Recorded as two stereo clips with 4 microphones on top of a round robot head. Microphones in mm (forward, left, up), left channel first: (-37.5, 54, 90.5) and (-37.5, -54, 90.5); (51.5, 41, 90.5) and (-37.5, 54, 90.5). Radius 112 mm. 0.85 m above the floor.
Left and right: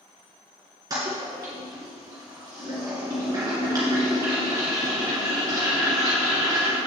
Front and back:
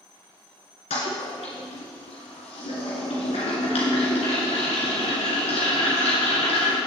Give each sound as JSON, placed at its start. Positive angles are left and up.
{"t": 0.9, "sound": "a toilet flushing", "azimuth_deg": -25, "distance_m": 1.9}